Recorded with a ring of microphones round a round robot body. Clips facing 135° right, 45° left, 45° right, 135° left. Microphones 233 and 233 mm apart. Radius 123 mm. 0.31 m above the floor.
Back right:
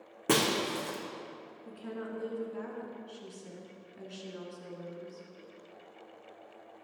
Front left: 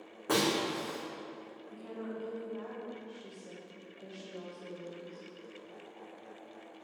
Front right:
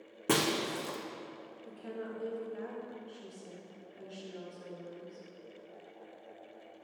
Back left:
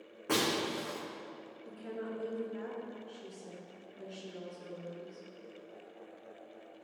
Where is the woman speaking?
135° right, 3.5 m.